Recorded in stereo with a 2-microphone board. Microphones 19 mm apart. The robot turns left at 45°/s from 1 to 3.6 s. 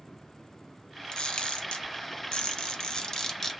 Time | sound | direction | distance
1.1 | a camera shutter | 50° left (ahead or behind) | 0.5 m